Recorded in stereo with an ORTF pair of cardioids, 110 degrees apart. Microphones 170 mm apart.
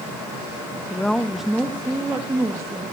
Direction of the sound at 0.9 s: 10° left.